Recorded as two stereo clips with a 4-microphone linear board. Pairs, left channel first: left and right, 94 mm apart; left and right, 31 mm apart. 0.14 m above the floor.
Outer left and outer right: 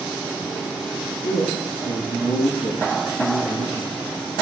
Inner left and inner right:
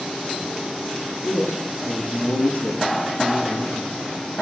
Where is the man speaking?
70° left (ahead or behind), 4 m.